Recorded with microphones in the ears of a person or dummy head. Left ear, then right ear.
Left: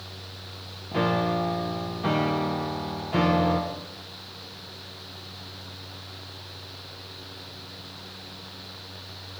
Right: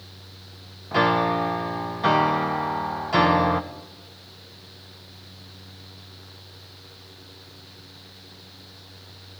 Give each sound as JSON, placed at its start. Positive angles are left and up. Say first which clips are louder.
{"t": 0.9, "sound": "a piano", "louder": "right 5 dB", "side_deg": -45, "distance_m": 0.8}